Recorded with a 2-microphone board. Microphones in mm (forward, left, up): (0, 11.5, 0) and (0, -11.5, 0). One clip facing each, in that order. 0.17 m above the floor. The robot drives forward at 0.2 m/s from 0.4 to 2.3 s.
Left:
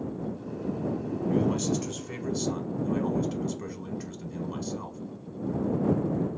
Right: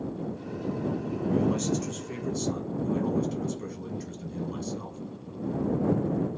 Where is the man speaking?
15° left (ahead or behind), 1.2 m.